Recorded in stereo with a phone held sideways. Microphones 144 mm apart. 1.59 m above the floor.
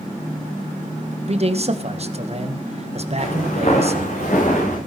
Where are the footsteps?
50° left (ahead or behind), 9 m; by 4.8 s 55° left (ahead or behind), 9 m.